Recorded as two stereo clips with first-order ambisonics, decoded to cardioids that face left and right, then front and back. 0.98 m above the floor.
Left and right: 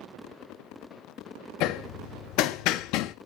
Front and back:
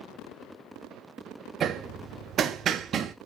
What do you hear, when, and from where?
1.6 s hammering: 120° left, 0.8 m